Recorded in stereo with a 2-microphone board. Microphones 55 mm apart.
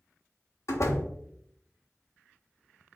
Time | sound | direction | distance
0.7 | a door slam | 65° left (ahead or behind) | 1.1 m